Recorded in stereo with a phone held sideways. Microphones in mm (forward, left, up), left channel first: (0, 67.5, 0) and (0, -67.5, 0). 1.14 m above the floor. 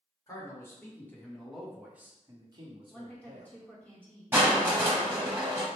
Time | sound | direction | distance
0.3 | a man speaking | 25° left (ahead or behind) | 1.4 m
2.9 | a woman speaking | 10° left (ahead or behind) | 1.3 m
4.3 | crushing | 15° right (ahead or behind) | 0.9 m